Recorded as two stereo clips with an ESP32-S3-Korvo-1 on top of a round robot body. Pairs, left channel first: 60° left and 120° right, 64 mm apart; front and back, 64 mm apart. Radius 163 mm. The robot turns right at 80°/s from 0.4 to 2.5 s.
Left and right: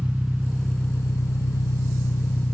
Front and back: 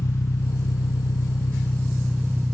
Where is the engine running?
45° right; by 2.5 s 125° left.